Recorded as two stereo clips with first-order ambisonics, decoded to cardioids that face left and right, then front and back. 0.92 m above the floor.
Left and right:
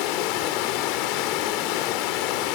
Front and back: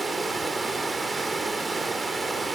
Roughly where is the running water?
Left.